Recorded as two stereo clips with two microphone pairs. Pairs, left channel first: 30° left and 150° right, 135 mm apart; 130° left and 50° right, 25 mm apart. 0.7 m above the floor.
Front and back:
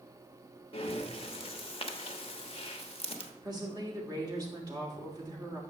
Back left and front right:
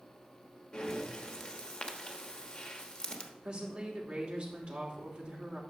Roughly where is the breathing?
Left.